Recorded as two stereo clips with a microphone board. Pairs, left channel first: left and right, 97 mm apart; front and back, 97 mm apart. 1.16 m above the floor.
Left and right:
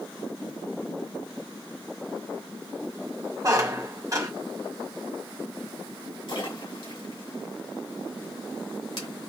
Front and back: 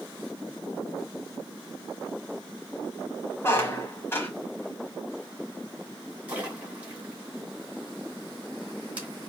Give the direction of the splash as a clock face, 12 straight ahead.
8 o'clock.